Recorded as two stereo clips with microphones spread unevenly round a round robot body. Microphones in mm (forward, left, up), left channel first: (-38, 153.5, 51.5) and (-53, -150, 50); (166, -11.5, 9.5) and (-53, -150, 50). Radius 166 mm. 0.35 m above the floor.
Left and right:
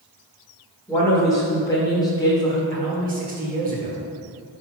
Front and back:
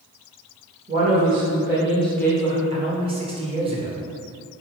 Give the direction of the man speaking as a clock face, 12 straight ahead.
3 o'clock.